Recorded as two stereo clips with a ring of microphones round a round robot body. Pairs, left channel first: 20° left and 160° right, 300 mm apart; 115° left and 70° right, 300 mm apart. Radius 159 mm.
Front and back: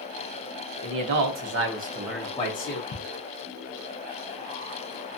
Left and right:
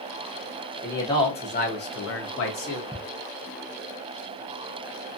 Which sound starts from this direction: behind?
A man speaking, at 0.8 s.